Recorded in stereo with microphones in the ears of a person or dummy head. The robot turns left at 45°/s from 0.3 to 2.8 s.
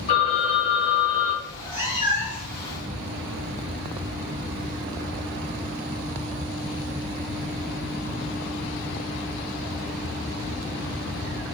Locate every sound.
0.1 s a phone ringing: 130° left, 0.6 m; by 1.4 s 80° left, 0.6 m
1.4 s a cat meowing: 10° right, 1.1 m; by 2.5 s 60° right, 1.1 m